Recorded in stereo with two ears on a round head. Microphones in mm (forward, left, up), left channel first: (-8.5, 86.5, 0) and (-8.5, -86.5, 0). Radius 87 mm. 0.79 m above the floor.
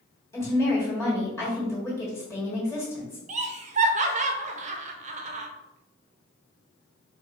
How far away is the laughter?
About 0.5 m.